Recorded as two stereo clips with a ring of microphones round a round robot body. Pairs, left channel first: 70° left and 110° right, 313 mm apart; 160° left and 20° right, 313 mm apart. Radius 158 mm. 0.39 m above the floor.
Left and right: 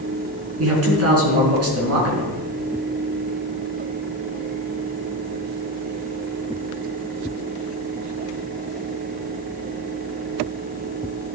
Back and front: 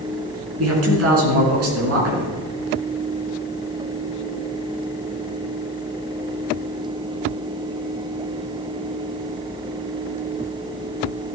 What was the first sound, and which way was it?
A man speaking, 70° right.